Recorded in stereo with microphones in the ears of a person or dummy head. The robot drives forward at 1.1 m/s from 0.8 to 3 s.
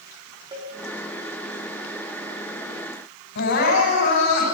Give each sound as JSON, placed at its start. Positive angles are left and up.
{"t": 0.5, "sound": "a cowbell", "side_deg": -25, "distance_m": 5.5}
{"t": 3.4, "sound": "crying", "side_deg": 60, "distance_m": 8.5}